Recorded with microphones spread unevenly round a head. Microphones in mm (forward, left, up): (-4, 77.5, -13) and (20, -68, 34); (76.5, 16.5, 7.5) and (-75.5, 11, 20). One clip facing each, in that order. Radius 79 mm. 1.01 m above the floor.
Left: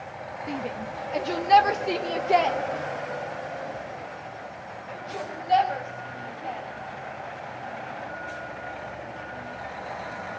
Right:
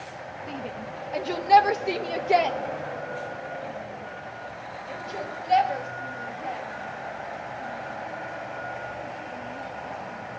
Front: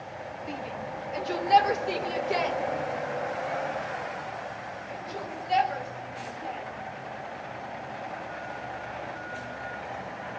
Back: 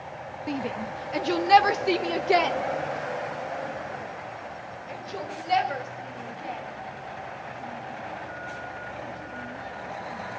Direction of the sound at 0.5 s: 165° left.